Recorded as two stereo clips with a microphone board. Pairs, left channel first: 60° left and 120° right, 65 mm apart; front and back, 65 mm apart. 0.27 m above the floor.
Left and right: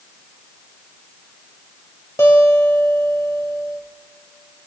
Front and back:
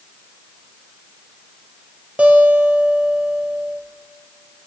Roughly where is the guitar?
Left.